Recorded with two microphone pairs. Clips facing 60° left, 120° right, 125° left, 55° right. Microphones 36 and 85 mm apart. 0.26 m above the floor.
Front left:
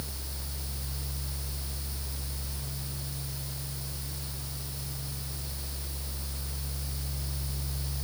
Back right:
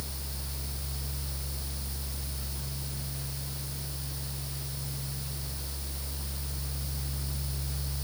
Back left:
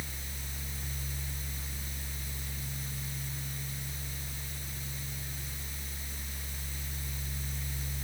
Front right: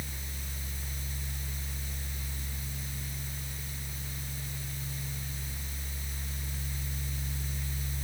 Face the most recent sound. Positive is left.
No sound to turn to.